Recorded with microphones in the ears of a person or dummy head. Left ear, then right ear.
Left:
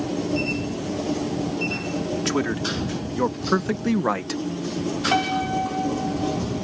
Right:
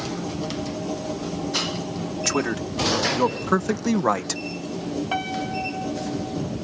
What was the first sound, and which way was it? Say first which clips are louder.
A man speaking: right 2 dB; 25° right (ahead or behind).